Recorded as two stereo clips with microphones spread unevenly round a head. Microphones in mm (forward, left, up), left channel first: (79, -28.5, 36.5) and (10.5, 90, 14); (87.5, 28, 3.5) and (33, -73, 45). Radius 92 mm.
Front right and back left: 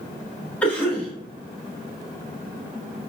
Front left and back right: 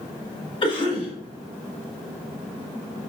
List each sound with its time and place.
0.6 s a cough: 20° left, 3 m